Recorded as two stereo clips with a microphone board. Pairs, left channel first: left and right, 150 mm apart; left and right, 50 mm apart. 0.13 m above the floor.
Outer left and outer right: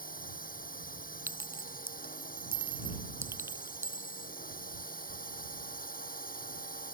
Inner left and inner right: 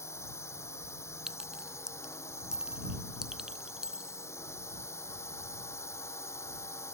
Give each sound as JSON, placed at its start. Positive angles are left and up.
{"t": 0.0, "sound": "a drone", "side_deg": 70}
{"t": 1.3, "sound": "a clink", "side_deg": -15}